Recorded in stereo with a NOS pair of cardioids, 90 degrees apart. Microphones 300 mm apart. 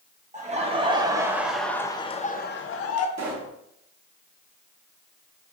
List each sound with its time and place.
0.3 s laughter: 25° right, 1.3 m; by 3.1 s 60° left, 0.8 m
3.2 s a pop: 65° right, 1.7 m